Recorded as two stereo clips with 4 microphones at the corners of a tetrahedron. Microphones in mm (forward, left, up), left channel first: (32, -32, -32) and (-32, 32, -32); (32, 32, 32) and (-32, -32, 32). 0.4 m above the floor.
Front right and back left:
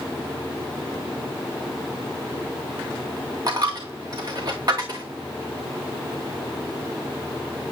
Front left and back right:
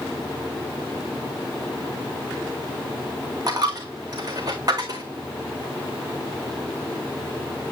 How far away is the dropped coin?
About 1.8 m.